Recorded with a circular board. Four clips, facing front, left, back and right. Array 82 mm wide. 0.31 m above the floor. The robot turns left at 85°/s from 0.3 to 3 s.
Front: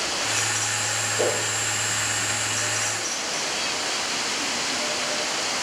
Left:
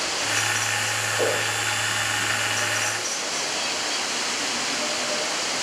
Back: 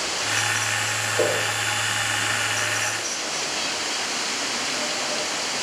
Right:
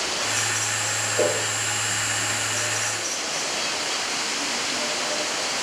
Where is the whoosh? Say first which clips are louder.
Right 2 dB, back 2 dB; 115° right, 5.5 m; by 1.4 s 140° right, 5.5 m.